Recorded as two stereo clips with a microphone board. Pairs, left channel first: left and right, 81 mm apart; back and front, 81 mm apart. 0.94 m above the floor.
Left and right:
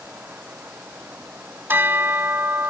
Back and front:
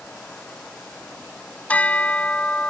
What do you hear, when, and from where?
1.7 s a bell: 125° right